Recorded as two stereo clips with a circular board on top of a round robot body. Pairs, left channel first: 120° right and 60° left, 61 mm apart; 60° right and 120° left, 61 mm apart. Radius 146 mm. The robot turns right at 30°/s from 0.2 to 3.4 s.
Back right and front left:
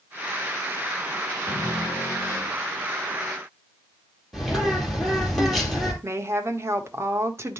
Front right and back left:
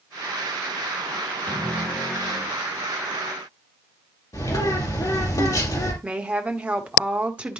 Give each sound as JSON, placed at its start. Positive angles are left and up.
{"t": 1.5, "sound": "a cupboard door", "azimuth_deg": -120, "distance_m": 5.5}
{"t": 4.3, "sound": "a bird", "azimuth_deg": -35, "distance_m": 3.5}
{"t": 6.0, "sound": "a woman speaking", "azimuth_deg": 55, "distance_m": 1.7}